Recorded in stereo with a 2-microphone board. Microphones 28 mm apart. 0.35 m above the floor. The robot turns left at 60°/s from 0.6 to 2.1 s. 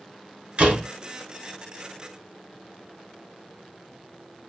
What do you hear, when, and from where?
0.6 s a door slam: 40° right (ahead or behind), 2.5 m; by 0.9 s 30° right (ahead or behind), 2.5 m